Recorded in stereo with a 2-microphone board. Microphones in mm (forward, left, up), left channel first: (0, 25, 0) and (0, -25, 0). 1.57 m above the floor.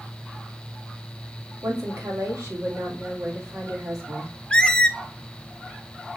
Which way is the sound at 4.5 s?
20° left (ahead or behind).